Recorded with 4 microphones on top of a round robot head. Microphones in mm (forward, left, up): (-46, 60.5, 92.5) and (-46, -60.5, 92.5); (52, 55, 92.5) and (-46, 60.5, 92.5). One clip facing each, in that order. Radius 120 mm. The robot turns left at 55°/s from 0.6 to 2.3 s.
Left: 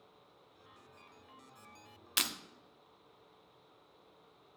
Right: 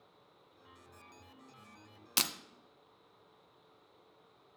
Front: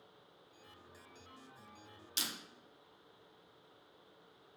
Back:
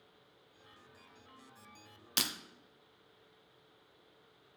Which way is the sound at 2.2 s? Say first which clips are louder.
Right 2 dB, back 5 dB; 145° right.